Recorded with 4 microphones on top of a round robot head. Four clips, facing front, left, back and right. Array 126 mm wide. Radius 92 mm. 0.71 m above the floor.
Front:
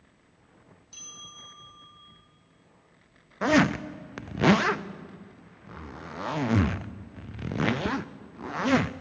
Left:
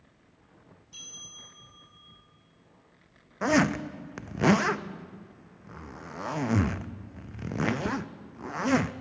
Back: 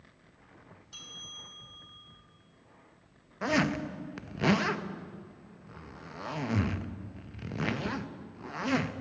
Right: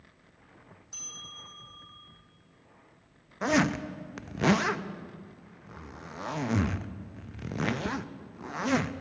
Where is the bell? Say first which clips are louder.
Right 6 dB, front 4 dB; 125° right, 4 m.